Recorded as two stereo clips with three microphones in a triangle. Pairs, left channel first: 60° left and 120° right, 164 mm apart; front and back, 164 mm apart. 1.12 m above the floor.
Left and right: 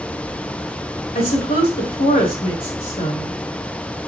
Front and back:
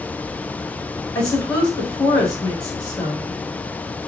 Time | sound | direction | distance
1.1 | a woman speaking | 65° left | 3.5 m